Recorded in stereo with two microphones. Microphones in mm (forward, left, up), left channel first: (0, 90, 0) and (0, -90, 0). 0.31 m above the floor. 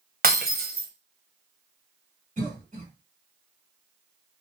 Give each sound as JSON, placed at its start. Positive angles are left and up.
{"t": 0.2, "sound": "breaking glass", "side_deg": -55, "distance_m": 1.1}
{"t": 2.4, "sound": "a cough", "side_deg": -45, "distance_m": 2.0}